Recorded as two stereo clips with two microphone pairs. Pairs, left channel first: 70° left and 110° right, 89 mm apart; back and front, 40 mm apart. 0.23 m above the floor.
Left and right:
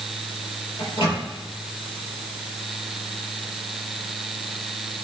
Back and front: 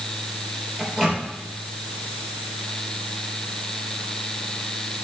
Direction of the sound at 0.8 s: 75° left.